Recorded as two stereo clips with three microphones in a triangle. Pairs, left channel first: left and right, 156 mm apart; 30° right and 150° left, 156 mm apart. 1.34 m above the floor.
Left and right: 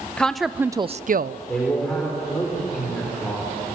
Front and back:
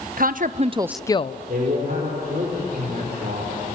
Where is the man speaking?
175° left, 4.5 m.